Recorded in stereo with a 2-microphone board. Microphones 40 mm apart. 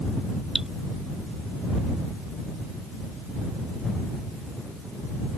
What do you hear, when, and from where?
0.6 s dripping: 15° right (ahead or behind)